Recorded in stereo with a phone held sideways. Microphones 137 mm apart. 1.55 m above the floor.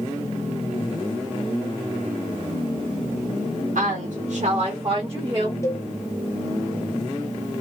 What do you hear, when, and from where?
3.8 s a woman speaking: 75° right (ahead or behind), 0.7 m; by 5.5 s 20° right (ahead or behind), 1.1 m
5.6 s a cowbell: 20° left (ahead or behind), 0.8 m